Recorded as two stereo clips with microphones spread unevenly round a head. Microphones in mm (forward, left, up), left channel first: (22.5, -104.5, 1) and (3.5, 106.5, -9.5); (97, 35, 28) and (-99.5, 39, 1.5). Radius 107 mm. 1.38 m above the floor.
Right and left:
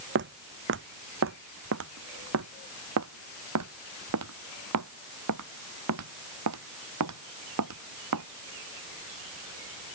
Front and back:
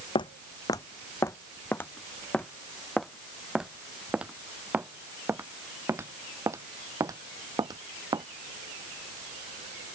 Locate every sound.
0.1 s footsteps: 60° left; by 8.2 s 105° left